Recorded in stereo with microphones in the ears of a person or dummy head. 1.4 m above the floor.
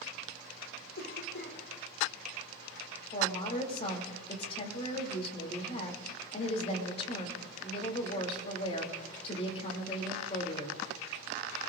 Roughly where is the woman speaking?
Left.